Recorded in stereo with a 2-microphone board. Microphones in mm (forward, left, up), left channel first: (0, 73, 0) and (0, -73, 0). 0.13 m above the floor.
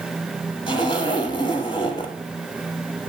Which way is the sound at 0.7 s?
35° left (ahead or behind).